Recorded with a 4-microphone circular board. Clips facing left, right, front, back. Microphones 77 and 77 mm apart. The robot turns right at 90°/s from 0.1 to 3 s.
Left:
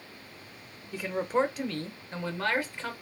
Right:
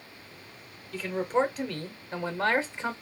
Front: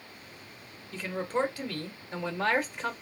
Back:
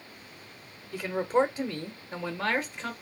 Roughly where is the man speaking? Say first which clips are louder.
Right 1 dB, back 5 dB; behind left.